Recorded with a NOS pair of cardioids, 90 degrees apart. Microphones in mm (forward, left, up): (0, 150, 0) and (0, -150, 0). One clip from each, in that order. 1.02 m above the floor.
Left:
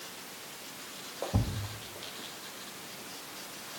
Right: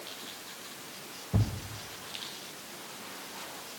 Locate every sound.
1.3 s a thud: 15° right, 2 m